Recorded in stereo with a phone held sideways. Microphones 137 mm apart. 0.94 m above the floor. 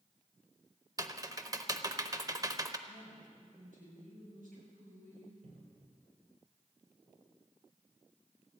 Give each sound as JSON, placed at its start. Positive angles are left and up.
{"t": 1.0, "sound": "typing on a keyboard", "side_deg": -25, "distance_m": 0.7}
{"t": 2.9, "sound": "a woman speaking", "side_deg": -85, "distance_m": 7.5}
{"t": 5.4, "sound": "a cupboard door", "side_deg": -70, "distance_m": 3.0}